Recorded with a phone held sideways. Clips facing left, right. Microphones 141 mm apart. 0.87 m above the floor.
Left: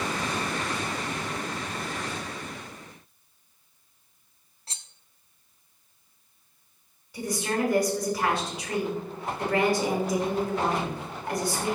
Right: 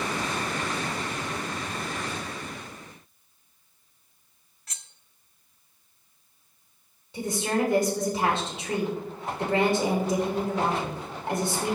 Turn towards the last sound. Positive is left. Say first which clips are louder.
# right 2 dB
turn(degrees=-25)  # may be behind; listen again after turning